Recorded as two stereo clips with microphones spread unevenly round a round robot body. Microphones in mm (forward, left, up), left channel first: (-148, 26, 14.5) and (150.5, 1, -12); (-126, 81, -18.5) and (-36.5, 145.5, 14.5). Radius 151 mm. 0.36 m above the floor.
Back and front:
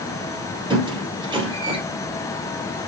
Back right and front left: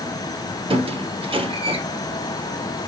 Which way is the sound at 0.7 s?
70° left.